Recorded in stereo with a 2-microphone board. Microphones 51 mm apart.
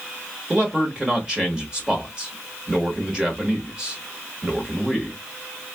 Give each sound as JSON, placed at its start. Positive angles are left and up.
{"t": 0.5, "sound": "a man speaking", "side_deg": -20, "distance_m": 1.1}